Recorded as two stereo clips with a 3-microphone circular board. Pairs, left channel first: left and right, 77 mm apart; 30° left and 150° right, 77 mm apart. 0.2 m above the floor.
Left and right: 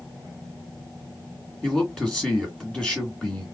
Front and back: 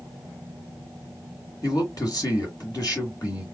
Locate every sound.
1.6 s a man speaking: 10° left, 2.5 m